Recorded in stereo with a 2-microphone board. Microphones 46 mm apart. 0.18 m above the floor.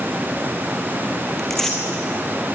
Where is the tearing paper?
5° left (ahead or behind), 2.5 m.